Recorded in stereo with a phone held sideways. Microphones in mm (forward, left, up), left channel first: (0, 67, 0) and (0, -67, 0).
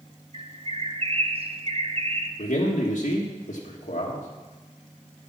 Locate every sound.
0.3 s a bird: 45° right (ahead or behind), 0.7 m
2.4 s a man speaking: 85° left, 1.4 m